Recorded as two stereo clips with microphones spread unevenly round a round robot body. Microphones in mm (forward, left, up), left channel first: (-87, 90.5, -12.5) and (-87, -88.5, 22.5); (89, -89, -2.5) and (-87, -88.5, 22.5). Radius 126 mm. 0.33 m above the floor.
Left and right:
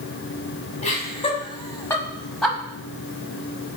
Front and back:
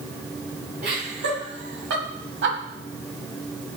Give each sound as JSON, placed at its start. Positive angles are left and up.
{"t": 0.8, "sound": "laughter", "azimuth_deg": 135, "distance_m": 2.5}